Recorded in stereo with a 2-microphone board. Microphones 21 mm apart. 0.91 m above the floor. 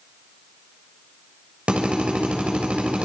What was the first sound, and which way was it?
A drill, 85° right.